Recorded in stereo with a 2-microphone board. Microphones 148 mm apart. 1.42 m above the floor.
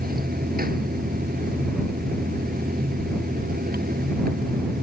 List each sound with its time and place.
0.0 s running water: 90° right